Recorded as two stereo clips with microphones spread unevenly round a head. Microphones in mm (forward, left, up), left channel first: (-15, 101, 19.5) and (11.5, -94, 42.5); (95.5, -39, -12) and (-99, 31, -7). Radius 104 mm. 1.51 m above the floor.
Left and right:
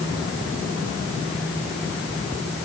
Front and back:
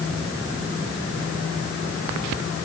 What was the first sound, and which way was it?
Only background noise.